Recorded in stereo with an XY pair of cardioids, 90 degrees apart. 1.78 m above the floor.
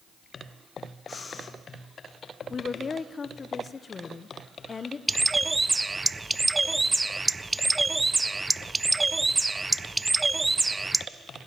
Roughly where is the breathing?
Ahead left.